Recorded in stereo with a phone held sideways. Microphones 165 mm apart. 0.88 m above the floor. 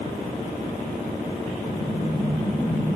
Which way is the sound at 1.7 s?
70° left (ahead or behind).